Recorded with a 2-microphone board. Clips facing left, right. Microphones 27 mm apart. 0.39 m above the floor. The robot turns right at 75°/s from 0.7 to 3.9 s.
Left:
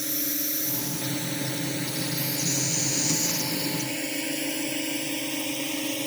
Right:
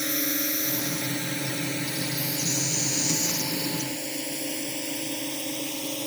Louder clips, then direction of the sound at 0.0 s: Right 3 dB; 45° right (ahead or behind).